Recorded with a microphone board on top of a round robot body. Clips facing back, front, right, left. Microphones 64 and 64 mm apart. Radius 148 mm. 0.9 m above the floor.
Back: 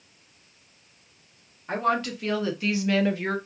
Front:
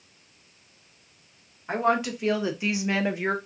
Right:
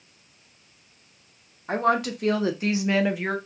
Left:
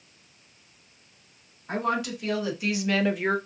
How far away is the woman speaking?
About 1.6 m.